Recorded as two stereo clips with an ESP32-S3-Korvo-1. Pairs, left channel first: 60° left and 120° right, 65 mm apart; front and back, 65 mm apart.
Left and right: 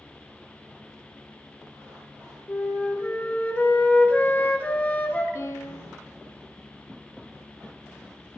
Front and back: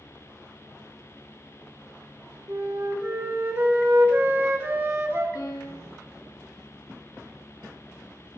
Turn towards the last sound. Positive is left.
turn(degrees=25)